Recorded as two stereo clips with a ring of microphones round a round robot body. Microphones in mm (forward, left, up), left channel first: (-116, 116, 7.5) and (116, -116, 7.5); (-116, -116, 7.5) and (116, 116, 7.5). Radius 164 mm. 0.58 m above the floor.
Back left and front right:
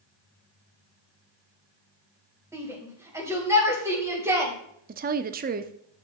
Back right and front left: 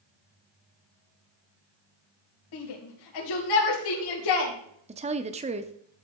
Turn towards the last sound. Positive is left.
turn(degrees=-10)